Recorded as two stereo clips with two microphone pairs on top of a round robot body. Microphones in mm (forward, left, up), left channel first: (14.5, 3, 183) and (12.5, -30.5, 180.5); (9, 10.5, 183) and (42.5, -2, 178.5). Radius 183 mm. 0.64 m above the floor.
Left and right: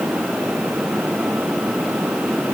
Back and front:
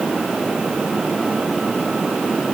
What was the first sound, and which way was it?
Only background noise.